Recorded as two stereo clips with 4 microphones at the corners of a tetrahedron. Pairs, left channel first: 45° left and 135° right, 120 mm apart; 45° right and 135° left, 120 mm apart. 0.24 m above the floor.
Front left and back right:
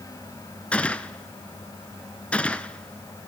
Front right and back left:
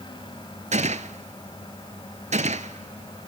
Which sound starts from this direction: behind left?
A gunshot, at 0.7 s.